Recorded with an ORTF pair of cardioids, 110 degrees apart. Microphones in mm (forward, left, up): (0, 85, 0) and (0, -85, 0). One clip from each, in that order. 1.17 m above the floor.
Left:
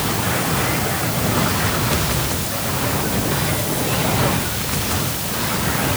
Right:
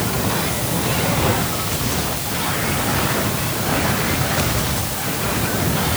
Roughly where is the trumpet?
I don't hear a trumpet.